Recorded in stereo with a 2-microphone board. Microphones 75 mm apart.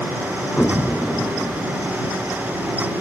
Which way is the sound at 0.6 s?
20° left (ahead or behind).